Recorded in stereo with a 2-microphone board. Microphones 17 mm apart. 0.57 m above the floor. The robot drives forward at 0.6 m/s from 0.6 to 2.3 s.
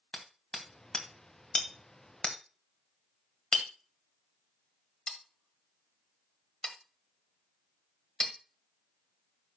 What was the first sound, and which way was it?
Hammering, 45° left (ahead or behind).